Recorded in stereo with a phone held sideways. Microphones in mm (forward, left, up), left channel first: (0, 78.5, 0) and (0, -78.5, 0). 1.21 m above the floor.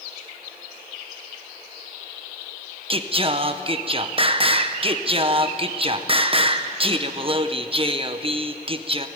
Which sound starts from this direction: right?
Singing, at 2.9 s.